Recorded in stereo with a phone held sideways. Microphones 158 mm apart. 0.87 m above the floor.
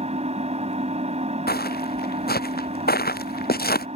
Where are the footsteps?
70° left (ahead or behind).